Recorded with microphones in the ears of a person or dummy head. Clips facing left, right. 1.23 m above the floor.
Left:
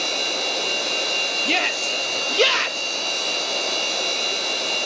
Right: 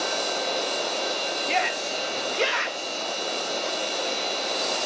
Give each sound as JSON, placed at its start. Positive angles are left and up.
{"t": 0.0, "sound": "a machine running", "side_deg": 85, "distance_m": 3.0}
{"t": 1.4, "sound": "a shout", "side_deg": 45, "distance_m": 1.2}